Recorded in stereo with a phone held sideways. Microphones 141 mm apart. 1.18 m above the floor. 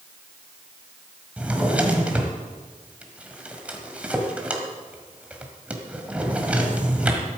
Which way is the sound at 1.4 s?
10° right (ahead or behind).